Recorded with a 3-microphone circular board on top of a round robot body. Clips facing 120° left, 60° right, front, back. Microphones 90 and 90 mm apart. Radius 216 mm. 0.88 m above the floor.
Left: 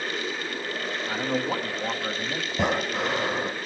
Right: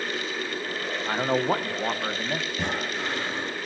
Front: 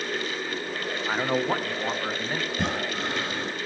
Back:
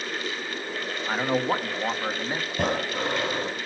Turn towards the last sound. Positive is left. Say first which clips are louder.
# left 4 dB, back 2 dB
turn(degrees=175)